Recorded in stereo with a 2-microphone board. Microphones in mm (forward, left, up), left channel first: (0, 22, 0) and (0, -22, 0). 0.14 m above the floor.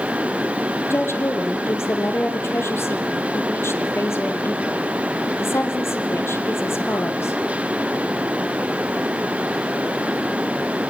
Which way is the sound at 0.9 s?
70° left (ahead or behind).